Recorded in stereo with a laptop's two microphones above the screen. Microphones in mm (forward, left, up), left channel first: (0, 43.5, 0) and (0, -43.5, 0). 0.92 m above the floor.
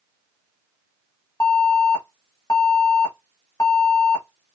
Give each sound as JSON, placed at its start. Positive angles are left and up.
{"t": 1.4, "sound": "an alarm", "side_deg": 45, "distance_m": 1.3}